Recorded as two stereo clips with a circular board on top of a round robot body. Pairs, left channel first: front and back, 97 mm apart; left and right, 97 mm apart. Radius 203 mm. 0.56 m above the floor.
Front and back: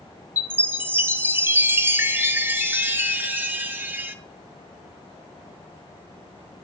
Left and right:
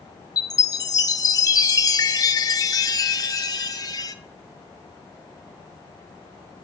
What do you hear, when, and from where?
0.4 s a chime: 120° left, 0.7 m